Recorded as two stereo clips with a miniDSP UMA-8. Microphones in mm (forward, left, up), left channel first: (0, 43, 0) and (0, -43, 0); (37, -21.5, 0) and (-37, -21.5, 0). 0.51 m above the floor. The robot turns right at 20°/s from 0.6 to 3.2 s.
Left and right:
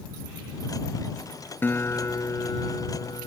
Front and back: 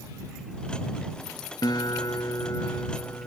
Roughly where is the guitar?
Ahead left.